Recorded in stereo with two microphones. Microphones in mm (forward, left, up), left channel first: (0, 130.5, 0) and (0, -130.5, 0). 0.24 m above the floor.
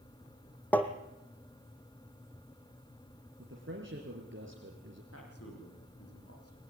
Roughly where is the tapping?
Centre.